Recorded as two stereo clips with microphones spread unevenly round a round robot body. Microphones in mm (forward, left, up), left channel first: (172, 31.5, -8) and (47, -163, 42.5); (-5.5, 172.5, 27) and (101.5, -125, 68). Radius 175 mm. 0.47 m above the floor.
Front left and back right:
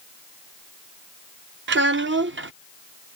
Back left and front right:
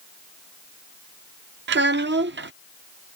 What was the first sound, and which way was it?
A child speaking, 115° right.